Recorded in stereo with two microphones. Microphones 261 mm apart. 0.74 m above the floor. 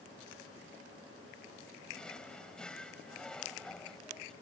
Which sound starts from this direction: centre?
A drawer, at 1.9 s.